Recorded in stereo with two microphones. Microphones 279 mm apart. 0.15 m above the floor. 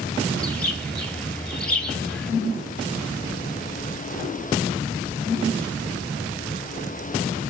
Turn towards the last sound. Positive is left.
turn(degrees=5)  # may be behind; listen again after turning